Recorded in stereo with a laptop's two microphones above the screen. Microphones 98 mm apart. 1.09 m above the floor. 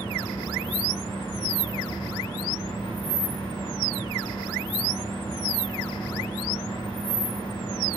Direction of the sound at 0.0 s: 55° left (ahead or behind).